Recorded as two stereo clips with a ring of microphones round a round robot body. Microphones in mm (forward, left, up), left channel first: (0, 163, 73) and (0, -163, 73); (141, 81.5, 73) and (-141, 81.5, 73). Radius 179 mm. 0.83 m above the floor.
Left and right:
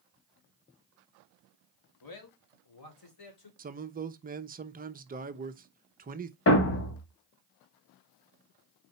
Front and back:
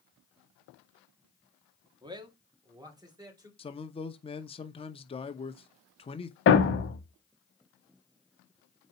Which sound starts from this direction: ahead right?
A man speaking, at 3.6 s.